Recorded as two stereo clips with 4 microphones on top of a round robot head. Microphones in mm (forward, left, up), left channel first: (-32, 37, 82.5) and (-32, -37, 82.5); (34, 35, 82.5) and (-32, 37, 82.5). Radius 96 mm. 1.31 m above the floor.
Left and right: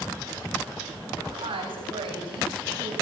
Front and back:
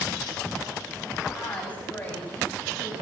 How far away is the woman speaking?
About 7 m.